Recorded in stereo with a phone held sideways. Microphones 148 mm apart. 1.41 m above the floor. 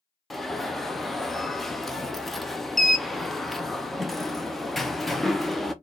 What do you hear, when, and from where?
0.3 s an alarm: centre (ahead or behind), 0.6 m